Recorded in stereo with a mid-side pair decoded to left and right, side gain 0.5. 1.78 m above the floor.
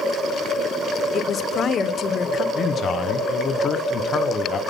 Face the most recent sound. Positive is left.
turn(degrees=45)